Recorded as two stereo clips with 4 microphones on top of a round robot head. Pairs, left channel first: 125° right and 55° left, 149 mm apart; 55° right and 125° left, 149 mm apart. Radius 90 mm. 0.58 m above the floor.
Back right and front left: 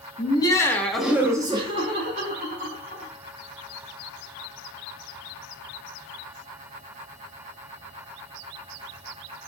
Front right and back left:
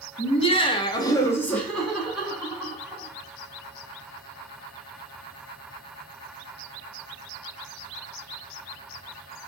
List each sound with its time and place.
0.2 s laughter: 85° right, 0.9 m; by 3.1 s 50° left, 1.4 m